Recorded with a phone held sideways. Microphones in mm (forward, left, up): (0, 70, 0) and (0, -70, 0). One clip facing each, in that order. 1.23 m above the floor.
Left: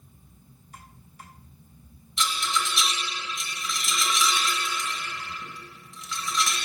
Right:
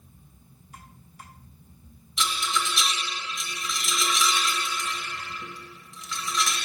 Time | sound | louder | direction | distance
2.2 | a rattle | even | centre (ahead or behind) | 1.4 m